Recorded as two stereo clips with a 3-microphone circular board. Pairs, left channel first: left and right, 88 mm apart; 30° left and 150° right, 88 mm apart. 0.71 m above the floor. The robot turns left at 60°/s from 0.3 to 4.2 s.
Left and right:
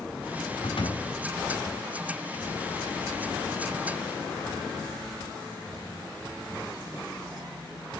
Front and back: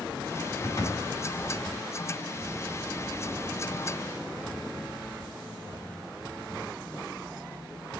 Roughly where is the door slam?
Left.